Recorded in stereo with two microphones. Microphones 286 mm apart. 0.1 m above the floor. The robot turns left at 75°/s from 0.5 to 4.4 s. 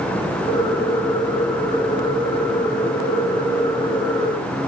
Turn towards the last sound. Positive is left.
No sound to turn to.